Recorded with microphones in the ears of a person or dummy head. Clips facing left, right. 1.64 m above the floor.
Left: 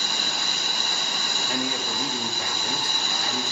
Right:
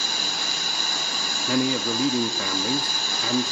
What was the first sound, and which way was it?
A man speaking, 70° right (ahead or behind).